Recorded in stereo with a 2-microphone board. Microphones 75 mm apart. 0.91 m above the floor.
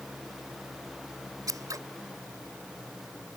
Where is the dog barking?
I don't hear a dog barking.